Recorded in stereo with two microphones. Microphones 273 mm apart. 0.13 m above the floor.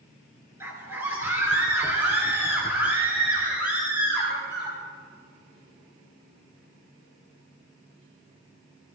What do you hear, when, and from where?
0.6 s a scream: 10° right (ahead or behind), 2.5 m; by 4.8 s 5° right (ahead or behind), 5 m